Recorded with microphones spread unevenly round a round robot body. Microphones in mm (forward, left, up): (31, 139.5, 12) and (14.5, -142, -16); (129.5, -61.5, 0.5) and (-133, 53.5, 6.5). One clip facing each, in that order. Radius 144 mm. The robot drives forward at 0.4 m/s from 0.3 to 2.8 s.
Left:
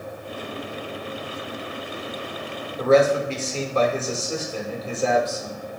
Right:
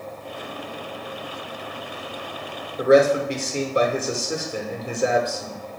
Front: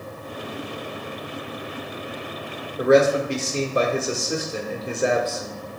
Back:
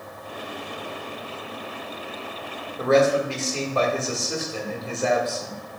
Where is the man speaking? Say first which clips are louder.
Right 2 dB, front 2 dB; 60° right, 1.0 m; by 5.6 s 65° right, 1.0 m.